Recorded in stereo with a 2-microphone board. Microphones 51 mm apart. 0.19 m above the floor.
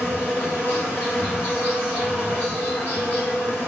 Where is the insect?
25° left (ahead or behind), 2 m.